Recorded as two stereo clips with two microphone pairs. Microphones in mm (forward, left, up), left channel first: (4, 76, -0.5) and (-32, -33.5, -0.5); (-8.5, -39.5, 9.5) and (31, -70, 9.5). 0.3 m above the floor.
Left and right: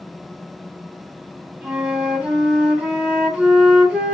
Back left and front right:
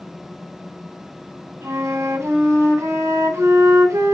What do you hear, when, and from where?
1.6 s a flute: 30° right, 3 m